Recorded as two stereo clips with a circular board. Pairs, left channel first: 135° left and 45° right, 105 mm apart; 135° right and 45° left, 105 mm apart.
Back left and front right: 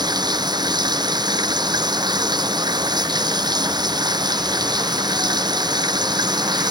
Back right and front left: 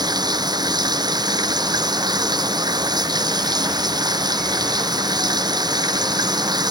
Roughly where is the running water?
Ahead.